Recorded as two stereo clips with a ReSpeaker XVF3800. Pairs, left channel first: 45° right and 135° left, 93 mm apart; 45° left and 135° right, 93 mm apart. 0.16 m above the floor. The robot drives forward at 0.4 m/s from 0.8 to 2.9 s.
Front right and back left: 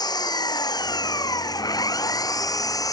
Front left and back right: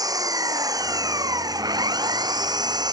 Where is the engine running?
90° right; by 2.9 s 95° right.